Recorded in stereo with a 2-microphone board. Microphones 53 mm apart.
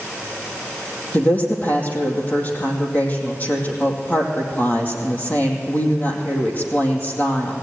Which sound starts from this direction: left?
A woman speaking, at 1.1 s.